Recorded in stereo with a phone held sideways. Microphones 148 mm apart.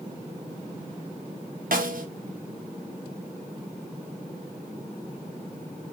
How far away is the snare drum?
About 1.1 m.